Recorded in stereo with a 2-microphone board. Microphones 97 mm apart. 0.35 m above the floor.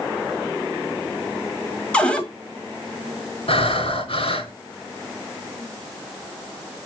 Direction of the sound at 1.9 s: 10° left (ahead or behind).